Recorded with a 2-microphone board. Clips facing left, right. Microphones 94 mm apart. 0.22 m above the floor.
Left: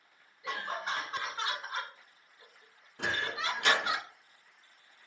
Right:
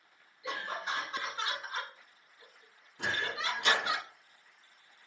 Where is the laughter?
50° left (ahead or behind), 2.5 m; by 4.0 s 20° left (ahead or behind), 3 m.